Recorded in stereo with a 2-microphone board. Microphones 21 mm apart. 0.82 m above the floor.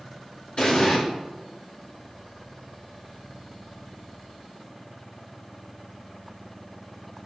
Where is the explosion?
50° left (ahead or behind), 2 m.